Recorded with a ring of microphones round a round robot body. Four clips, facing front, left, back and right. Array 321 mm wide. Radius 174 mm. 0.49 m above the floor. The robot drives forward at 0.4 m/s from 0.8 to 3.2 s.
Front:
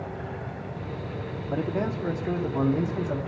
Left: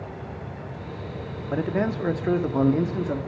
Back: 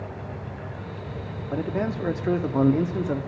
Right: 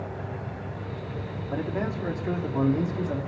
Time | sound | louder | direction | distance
1.5 | a man speaking | left 5 dB, back 1 dB | 85° left | 0.8 m